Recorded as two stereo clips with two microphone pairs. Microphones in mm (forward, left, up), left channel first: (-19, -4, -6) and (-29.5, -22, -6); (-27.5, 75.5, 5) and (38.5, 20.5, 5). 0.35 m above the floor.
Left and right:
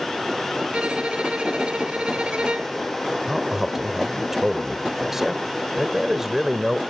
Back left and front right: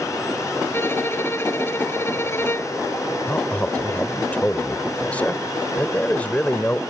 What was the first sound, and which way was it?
A violin, 160° right.